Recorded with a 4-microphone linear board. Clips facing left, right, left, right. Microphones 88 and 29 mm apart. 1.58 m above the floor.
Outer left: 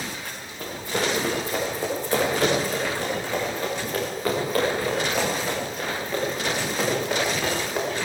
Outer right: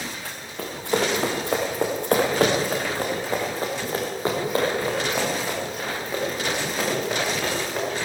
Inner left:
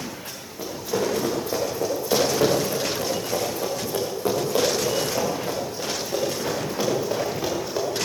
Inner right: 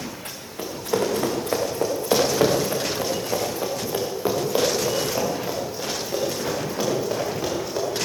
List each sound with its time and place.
0.2 s running footsteps: 75° right (ahead or behind), 6.5 m; by 7.9 s centre (ahead or behind), 10.5 m